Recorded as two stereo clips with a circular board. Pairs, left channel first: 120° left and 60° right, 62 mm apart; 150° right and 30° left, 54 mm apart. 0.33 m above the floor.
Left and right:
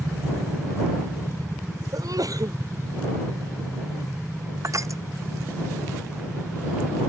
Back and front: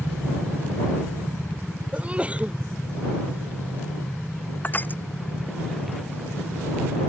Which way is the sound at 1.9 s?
35° right.